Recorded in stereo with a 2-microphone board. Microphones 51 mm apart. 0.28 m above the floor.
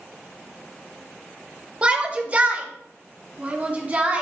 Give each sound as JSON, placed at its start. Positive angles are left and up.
{"t": 1.8, "sound": "a shout", "side_deg": -25, "distance_m": 1.0}